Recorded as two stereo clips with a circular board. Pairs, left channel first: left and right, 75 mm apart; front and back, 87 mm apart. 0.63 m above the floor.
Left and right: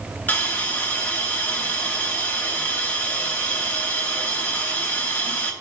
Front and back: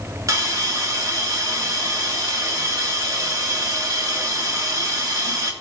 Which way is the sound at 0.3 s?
150° left.